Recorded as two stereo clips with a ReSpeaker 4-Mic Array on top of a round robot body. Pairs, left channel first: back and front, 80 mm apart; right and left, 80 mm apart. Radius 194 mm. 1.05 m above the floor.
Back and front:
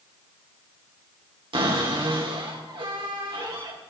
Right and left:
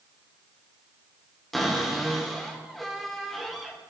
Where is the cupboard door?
Straight ahead, 3 m.